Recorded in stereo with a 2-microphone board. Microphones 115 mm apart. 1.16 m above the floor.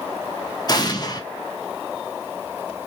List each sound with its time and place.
0.7 s an explosion: 35° left (ahead or behind), 0.5 m